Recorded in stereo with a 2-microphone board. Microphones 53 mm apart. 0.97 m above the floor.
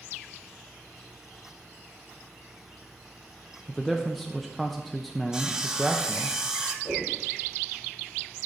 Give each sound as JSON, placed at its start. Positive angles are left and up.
{"t": 3.7, "sound": "a man speaking", "side_deg": 0, "distance_m": 0.6}
{"t": 5.3, "sound": "sawing", "side_deg": -10, "distance_m": 0.6}
{"t": 6.8, "sound": "a whoosh", "side_deg": 75, "distance_m": 3.0}